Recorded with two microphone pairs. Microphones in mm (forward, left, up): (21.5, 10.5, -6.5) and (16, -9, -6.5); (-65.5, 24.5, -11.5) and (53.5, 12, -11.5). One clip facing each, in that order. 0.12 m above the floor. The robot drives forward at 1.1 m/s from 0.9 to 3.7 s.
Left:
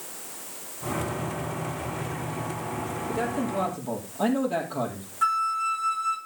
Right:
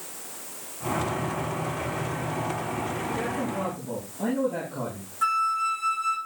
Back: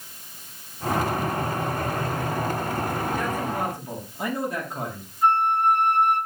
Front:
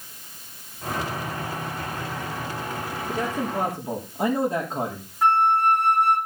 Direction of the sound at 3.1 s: 50° left.